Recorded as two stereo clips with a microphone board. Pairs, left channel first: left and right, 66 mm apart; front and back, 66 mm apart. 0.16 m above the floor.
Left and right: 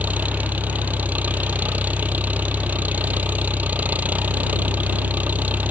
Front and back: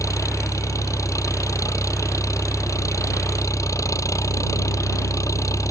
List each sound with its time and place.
0.0 s an engine running: 25° right